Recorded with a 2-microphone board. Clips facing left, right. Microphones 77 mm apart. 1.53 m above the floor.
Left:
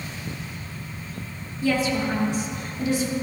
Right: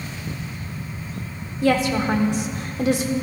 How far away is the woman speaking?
About 1.5 m.